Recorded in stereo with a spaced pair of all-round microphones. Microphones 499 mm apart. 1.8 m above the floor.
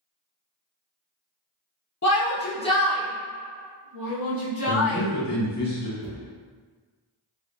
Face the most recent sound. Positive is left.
turn(degrees=-50)  # may be behind; listen again after turning